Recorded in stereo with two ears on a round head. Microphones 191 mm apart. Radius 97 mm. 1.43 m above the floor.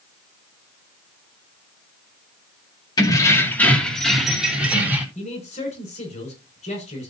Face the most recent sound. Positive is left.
turn(degrees=30)  # may be behind; listen again after turning